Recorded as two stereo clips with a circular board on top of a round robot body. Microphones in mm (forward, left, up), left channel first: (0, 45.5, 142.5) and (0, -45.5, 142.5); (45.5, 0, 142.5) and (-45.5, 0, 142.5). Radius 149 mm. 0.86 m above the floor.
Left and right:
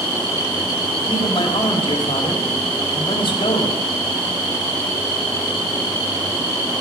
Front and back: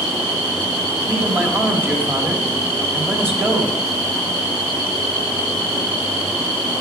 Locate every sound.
1.1 s a man speaking: 115° left, 1.5 m